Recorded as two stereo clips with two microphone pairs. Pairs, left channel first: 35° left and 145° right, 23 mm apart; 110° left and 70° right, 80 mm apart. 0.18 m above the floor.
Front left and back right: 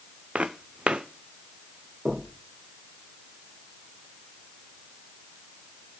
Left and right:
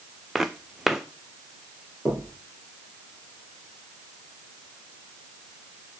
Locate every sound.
0.3 s footsteps: 160° right, 0.9 m
2.0 s knocking: 155° right, 3.5 m